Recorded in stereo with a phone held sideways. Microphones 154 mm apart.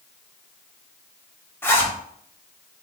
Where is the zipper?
15° left (ahead or behind), 0.8 m.